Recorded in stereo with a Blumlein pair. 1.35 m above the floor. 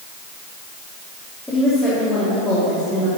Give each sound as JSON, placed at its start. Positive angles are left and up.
{"t": 1.5, "sound": "a woman speaking", "azimuth_deg": 10, "distance_m": 3.5}